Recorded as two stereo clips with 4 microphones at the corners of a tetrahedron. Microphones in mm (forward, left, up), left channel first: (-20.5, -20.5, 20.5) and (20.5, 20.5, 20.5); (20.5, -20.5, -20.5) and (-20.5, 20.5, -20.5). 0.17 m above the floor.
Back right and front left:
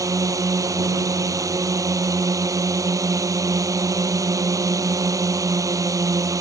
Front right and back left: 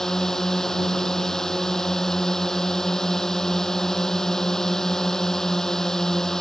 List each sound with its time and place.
0.0 s a drone: 35° left